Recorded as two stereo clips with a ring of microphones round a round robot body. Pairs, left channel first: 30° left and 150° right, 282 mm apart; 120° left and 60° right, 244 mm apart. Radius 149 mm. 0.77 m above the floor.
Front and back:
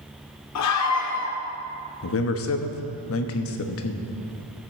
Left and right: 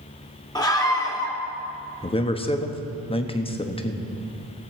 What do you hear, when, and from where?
0.6 s a scream: 45° left, 2 m
2.0 s a man speaking: 55° left, 1.1 m